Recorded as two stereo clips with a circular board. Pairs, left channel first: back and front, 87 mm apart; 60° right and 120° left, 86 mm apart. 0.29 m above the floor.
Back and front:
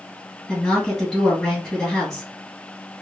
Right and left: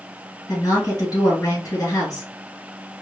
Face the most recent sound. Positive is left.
turn(degrees=-105)